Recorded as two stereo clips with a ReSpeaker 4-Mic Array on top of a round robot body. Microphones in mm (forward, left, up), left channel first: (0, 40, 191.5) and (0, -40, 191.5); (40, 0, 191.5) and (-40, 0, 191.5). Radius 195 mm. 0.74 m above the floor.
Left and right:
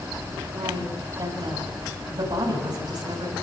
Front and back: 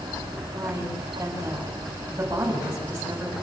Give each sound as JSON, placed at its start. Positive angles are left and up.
{"t": 0.5, "sound": "a woman speaking", "azimuth_deg": -115, "distance_m": 7.5}